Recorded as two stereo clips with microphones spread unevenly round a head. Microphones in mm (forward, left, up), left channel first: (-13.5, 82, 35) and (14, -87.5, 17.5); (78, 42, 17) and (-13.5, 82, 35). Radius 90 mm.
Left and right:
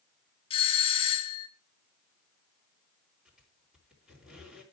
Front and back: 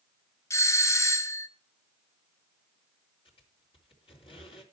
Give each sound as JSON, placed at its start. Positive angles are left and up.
{"t": 0.5, "sound": "a doorbell", "azimuth_deg": 40, "distance_m": 1.2}
{"t": 3.2, "sound": "a squeak", "azimuth_deg": 5, "distance_m": 4.0}